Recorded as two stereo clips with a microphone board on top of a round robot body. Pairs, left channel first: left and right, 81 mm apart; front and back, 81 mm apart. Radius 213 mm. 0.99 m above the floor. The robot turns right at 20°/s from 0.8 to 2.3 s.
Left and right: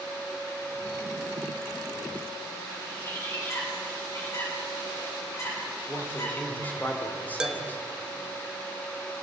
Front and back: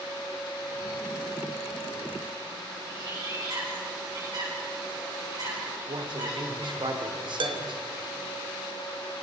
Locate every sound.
2.9 s a bird: 145° left, 9.5 m
5.9 s a man speaking: 160° left, 3.5 m
7.4 s dishes clattering: 170° right, 1.3 m